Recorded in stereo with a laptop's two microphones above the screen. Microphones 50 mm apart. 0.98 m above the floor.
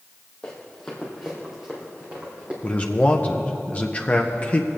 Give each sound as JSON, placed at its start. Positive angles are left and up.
{"t": 0.4, "sound": "running footsteps", "side_deg": 20, "distance_m": 2.0}
{"t": 2.6, "sound": "a man speaking", "side_deg": 30, "distance_m": 0.6}